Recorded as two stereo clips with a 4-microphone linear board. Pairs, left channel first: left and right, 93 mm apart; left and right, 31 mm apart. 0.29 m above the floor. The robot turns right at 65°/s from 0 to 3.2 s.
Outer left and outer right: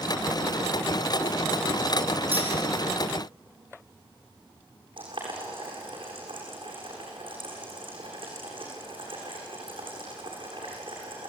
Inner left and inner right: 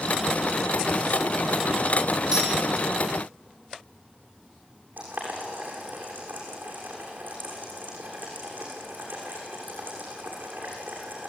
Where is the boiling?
70° right (ahead or behind), 8 m.